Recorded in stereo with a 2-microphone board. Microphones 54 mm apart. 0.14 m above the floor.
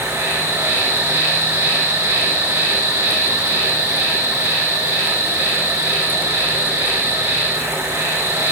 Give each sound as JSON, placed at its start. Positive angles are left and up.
{"t": 0.0, "sound": "an insect", "side_deg": -80, "distance_m": 9.5}